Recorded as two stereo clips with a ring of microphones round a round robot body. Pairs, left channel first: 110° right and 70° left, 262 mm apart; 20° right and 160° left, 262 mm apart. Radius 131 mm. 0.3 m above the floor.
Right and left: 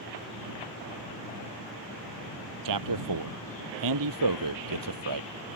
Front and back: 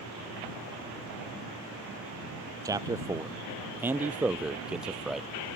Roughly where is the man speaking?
Left.